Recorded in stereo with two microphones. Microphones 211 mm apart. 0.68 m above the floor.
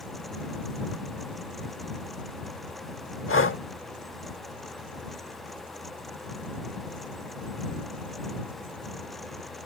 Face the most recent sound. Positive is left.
turn(degrees=70)  # may be behind; listen again after turning